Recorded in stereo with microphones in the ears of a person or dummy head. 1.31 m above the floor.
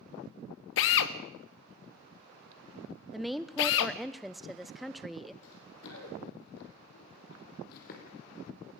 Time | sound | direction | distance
0.8 | a drill | 65° left (ahead or behind) | 1.1 m
3.1 | a woman speaking | 5° right (ahead or behind) | 0.7 m
5.4 | running footsteps | 70° left (ahead or behind) | 4.5 m